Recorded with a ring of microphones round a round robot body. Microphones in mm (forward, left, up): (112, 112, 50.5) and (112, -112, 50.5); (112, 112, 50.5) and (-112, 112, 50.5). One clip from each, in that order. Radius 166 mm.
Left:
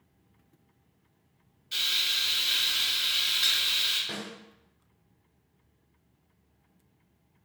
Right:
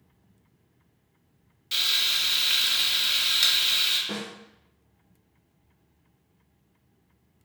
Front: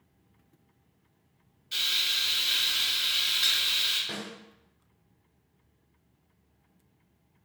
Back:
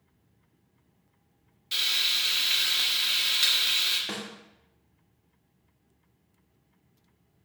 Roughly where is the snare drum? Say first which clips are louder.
Right 3 dB, back 1 dB; behind.